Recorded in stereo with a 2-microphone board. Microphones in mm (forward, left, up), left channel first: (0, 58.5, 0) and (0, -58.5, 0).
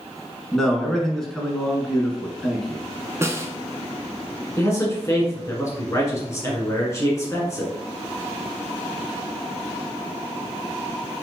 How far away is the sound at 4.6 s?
About 1.6 m.